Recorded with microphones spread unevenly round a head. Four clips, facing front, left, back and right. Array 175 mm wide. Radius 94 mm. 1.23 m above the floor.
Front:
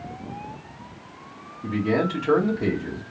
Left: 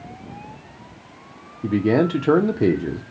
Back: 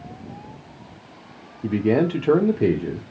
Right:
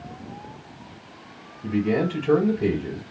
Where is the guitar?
I don't hear a guitar.